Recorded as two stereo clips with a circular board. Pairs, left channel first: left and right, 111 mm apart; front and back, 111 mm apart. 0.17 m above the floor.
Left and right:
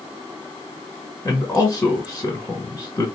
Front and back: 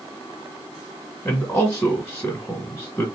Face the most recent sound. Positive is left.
turn(degrees=60)